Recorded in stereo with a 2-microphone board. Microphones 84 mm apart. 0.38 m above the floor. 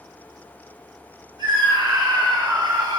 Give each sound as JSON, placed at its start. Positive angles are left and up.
{"t": 1.4, "sound": "a scream", "side_deg": -60, "distance_m": 1.6}